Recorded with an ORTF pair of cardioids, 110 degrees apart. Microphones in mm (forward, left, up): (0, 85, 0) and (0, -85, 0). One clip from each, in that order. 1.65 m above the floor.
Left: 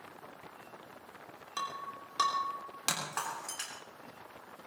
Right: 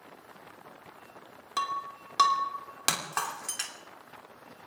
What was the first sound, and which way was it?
Breaking glass, 35° right.